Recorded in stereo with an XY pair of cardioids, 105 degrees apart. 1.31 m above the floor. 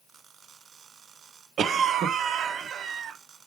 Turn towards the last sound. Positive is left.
turn(degrees=-60)